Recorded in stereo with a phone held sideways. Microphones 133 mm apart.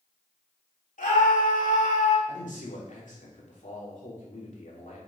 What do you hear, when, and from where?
1.0 s a scream: 75° left (ahead or behind), 2.5 m; by 2.2 s 70° left (ahead or behind), 1.9 m
2.3 s a man speaking: 70° left (ahead or behind), 3 m